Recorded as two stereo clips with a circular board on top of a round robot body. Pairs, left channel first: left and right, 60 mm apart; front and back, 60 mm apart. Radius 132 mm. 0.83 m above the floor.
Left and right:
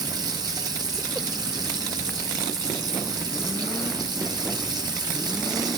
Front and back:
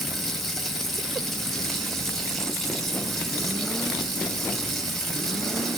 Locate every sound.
0.0 s running water: 85° right, 2.5 m